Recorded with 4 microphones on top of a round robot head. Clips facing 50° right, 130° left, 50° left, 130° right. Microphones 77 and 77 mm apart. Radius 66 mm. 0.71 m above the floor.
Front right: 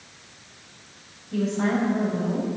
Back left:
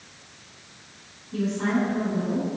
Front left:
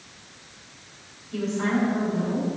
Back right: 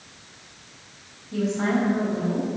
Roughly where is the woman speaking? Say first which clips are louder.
Front right 1 dB, back right 2 dB; right.